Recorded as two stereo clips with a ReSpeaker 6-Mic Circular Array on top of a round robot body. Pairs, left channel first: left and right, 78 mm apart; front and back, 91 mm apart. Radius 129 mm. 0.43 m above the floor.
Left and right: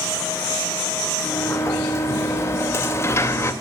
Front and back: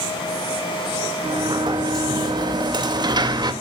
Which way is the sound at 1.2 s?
145° left.